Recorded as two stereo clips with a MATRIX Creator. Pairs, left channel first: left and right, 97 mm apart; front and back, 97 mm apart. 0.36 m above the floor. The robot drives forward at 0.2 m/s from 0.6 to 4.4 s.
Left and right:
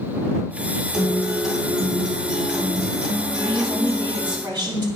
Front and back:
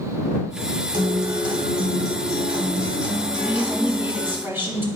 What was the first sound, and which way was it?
A guitar, 175° right.